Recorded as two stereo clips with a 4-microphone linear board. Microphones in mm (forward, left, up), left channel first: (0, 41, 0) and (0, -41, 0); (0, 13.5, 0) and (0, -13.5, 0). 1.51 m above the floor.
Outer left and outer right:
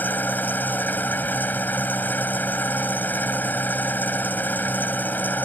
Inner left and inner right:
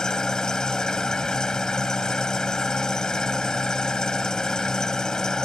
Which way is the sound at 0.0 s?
20° left (ahead or behind).